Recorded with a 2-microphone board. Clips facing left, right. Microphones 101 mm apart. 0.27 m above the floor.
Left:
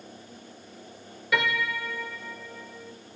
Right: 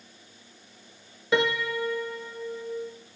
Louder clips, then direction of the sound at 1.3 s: Right 3 dB; 25° right (ahead or behind).